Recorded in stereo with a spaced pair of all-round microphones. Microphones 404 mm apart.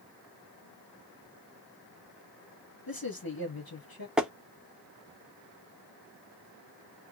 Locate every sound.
2.9 s a man speaking: 55° left (ahead or behind), 1.7 m
4.2 s tapping: centre (ahead or behind), 0.6 m